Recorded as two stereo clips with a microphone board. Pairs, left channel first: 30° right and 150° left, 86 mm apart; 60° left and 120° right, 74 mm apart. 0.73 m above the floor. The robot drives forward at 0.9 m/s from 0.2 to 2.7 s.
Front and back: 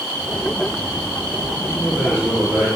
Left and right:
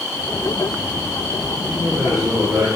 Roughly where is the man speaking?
Right.